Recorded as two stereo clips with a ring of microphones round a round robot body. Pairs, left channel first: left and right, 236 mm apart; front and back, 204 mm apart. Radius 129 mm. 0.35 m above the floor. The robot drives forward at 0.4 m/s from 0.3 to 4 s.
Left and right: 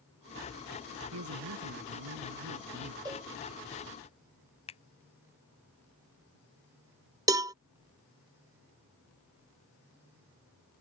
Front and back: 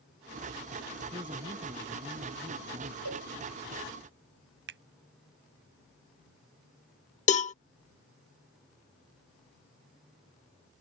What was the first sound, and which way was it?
A man speaking, 110° right.